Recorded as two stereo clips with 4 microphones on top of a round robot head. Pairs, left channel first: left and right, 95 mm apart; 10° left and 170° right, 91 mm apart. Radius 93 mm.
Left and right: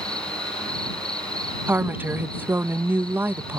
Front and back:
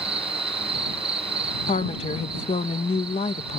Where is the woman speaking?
20° right.